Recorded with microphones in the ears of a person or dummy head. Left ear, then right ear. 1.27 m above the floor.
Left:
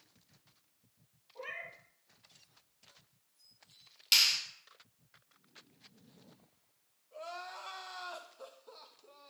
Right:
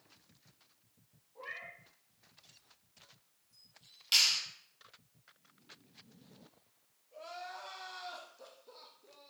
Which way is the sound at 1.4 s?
40° left (ahead or behind).